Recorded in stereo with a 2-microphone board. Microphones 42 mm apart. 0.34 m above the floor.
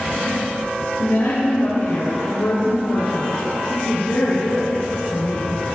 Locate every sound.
1.0 s a woman speaking: 75° left (ahead or behind), 6 m